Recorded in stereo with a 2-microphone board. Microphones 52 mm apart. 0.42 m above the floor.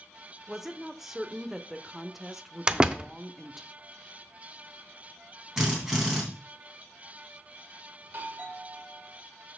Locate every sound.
0.5 s a woman speaking: 5° right (ahead or behind), 0.8 m
2.7 s a door slam: 15° right (ahead or behind), 0.6 m
5.6 s a drill: 10° right (ahead or behind), 3 m
8.0 s a doorbell: 35° right (ahead or behind), 1.8 m